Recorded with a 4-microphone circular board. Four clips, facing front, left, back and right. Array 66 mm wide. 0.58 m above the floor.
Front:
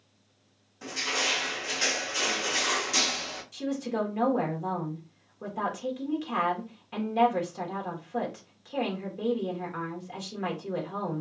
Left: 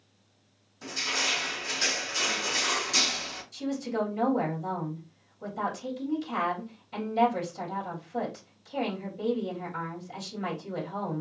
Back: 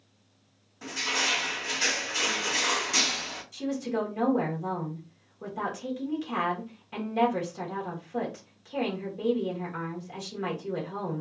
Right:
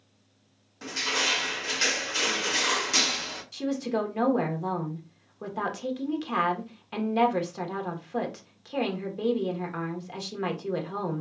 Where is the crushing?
95° right, 2.0 m.